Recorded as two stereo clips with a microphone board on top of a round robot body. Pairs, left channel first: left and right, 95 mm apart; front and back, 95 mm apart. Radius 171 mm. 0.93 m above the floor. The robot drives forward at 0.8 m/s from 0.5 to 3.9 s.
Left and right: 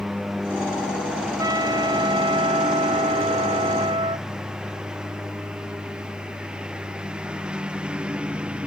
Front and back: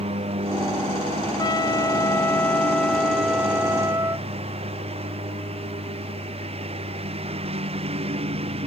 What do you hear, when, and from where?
0.0 s a lawn mower: 175° right; by 8.7 s 170° right
1.4 s a trumpet: 45° right; by 4.3 s 115° right